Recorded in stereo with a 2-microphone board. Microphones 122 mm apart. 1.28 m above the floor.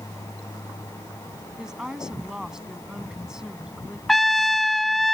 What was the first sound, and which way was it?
A woman speaking, 5° right (ahead or behind).